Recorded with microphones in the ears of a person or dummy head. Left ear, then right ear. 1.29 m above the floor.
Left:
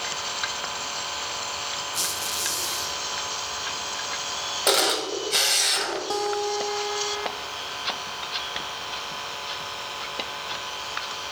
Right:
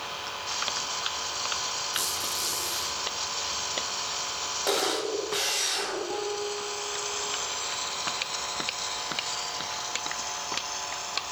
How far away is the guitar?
About 0.7 m.